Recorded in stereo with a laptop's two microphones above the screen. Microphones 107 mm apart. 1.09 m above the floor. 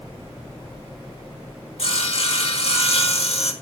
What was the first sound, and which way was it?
Sawing, 65° left (ahead or behind).